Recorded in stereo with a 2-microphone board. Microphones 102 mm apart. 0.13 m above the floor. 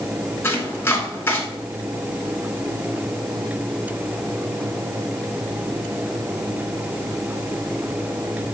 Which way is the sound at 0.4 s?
20° left (ahead or behind).